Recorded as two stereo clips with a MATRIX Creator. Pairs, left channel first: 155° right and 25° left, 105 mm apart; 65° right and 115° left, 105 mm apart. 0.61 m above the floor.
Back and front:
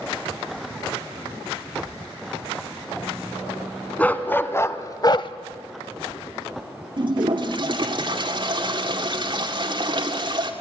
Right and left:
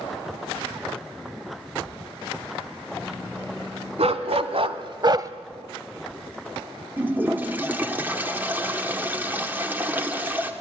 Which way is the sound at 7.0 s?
45° left.